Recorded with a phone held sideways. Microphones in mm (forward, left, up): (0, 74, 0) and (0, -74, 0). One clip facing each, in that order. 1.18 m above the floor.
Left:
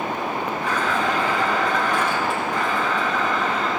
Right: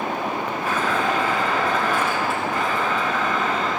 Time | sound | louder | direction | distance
0.6 | a blender | right 1 dB | 5° right (ahead or behind) | 3.5 m